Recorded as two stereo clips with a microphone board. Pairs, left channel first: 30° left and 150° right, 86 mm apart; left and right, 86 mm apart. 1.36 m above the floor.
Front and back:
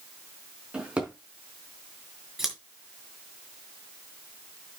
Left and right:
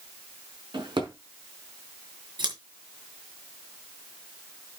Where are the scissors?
65° right, 4 m.